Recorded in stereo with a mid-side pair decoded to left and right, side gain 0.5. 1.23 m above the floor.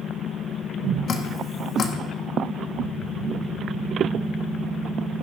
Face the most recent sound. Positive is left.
turn(degrees=50)